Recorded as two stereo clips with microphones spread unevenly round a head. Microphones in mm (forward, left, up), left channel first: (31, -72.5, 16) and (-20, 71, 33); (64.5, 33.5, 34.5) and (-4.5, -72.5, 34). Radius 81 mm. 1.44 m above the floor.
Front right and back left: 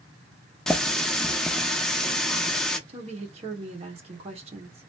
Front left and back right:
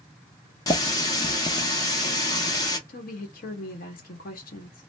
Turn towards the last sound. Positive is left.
turn(degrees=60)